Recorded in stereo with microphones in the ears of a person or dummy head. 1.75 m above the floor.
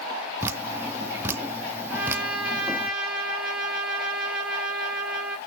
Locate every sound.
0.4 s dripping: 15° right (ahead or behind), 0.7 m
1.9 s a trumpet: 5° right (ahead or behind), 2.5 m